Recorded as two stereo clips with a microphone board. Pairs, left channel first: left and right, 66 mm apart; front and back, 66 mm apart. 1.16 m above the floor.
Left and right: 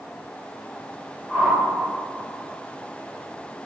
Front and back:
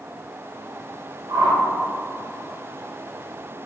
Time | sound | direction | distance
1.3 | a whoosh | 175° left | 1.7 m